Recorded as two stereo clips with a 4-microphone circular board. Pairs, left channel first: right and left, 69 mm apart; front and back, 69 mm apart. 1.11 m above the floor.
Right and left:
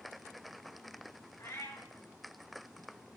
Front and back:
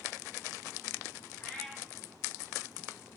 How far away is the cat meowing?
About 3 m.